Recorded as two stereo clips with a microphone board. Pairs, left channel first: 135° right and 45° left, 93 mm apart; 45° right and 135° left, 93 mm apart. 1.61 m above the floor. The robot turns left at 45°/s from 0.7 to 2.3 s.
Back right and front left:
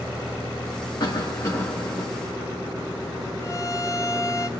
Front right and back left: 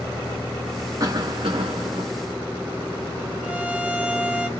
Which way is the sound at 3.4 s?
160° right.